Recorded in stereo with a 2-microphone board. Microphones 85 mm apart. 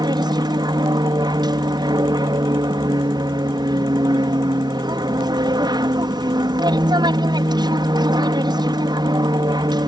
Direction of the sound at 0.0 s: 55° right (ahead or behind).